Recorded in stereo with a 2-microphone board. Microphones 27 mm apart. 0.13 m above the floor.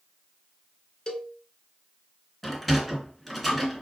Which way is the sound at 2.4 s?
Centre (ahead or behind).